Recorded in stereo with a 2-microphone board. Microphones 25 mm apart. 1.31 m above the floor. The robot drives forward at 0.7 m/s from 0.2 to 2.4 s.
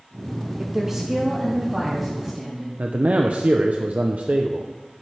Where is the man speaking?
70° right (ahead or behind), 0.6 m.